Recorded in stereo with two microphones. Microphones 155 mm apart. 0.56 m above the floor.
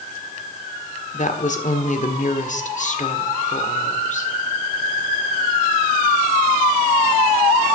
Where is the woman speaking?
55° left (ahead or behind), 1.5 m.